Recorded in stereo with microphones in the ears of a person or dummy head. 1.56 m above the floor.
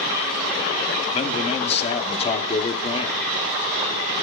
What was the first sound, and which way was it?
A man speaking, 35° left (ahead or behind).